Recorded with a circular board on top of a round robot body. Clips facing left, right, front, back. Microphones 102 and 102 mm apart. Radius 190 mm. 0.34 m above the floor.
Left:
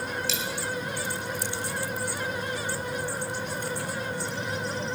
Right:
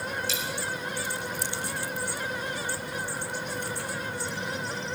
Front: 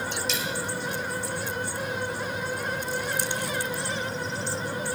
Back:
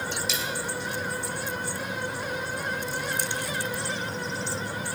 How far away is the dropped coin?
About 1.6 m.